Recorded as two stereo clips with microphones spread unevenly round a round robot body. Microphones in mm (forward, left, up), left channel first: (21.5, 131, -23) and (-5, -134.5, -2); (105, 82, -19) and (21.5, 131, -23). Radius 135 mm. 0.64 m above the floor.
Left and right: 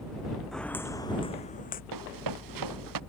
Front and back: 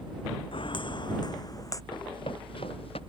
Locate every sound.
0.5 s footsteps: 5° right; by 1.8 s 25° left
1.9 s running footsteps: 95° right; by 3.0 s 90° right